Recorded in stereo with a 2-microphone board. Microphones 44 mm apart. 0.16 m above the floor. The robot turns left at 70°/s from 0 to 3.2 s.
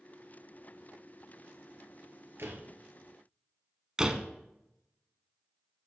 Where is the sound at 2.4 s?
65° right (ahead or behind), 2 m; by 2.7 s 60° right (ahead or behind), 2 m.